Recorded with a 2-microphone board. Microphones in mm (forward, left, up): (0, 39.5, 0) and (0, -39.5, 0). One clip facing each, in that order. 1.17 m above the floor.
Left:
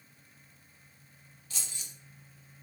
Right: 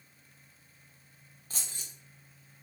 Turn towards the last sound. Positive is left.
turn(degrees=-45)  # may be behind; listen again after turning